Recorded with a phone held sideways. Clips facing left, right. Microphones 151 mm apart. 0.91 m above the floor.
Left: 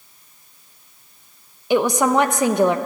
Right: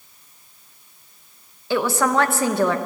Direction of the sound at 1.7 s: 15° left (ahead or behind).